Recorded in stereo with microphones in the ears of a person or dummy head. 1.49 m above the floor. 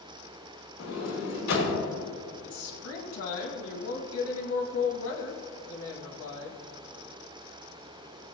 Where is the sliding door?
70° left (ahead or behind), 3.5 m.